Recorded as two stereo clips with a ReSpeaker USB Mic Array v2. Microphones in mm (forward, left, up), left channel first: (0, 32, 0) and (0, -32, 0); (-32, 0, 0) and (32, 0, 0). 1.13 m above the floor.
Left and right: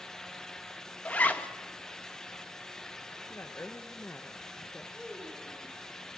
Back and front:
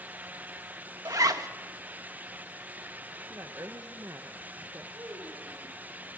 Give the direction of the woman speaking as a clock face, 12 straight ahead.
11 o'clock.